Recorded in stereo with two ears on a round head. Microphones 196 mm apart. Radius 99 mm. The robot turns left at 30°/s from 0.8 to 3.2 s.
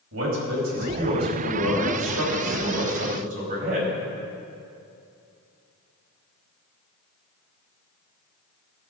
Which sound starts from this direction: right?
A man speaking, at 0.1 s.